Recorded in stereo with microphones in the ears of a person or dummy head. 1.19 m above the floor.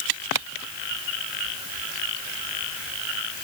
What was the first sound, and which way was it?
Only background noise.